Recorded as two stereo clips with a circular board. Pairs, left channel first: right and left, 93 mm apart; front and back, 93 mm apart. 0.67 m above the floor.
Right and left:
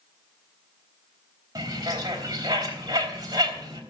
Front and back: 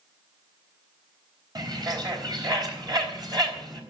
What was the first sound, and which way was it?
A bird, 135° left.